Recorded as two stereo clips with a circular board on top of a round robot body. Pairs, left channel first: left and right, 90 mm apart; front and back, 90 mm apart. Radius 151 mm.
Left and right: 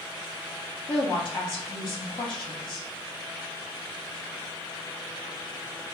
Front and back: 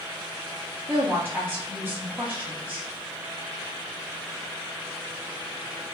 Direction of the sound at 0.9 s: 110° left.